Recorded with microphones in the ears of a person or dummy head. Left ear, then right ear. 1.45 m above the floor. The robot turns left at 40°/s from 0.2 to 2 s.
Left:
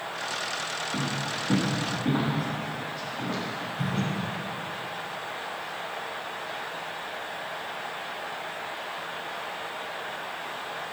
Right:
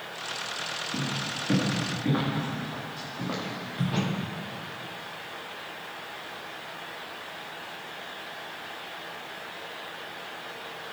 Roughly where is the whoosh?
Right.